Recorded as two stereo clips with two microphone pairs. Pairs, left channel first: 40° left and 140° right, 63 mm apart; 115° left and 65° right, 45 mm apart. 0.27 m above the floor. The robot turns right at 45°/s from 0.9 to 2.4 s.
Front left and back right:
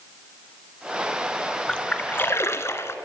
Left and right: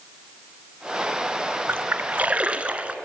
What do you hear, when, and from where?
1.7 s a splash: 35° right, 1.2 m; by 3.0 s 5° right, 1.2 m